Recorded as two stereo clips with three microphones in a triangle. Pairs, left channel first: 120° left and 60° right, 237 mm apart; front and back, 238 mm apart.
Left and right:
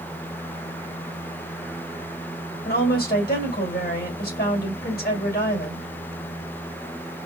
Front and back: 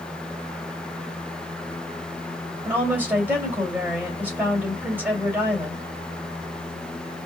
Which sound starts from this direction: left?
A woman speaking, at 2.6 s.